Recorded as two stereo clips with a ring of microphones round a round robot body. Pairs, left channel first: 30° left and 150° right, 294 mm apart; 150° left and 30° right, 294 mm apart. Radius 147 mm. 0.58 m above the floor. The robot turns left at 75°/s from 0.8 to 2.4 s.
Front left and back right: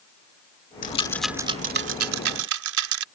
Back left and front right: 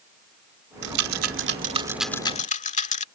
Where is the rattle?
30° right; by 3.0 s 145° right.